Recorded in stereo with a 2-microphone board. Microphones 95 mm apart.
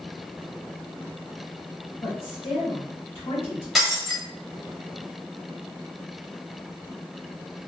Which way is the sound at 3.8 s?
5° right (ahead or behind).